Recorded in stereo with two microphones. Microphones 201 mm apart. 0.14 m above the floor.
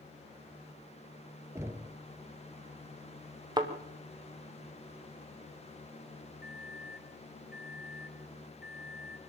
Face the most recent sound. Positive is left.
turn(degrees=55)  # may be behind; listen again after turning